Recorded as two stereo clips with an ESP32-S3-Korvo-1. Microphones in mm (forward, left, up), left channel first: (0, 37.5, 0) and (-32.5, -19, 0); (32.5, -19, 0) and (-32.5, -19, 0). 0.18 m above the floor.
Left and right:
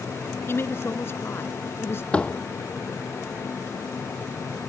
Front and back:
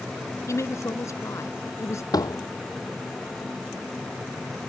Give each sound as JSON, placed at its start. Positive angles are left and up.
{"t": 0.5, "sound": "a woman speaking", "azimuth_deg": 20}
{"t": 2.1, "sound": "a door slam", "azimuth_deg": -10}